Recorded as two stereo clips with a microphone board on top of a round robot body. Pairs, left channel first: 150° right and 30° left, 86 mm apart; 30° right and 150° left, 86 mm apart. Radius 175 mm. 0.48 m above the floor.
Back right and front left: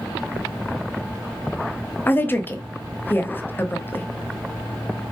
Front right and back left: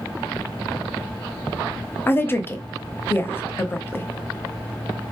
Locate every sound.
2.1 s a woman speaking: 90° right, 1.0 m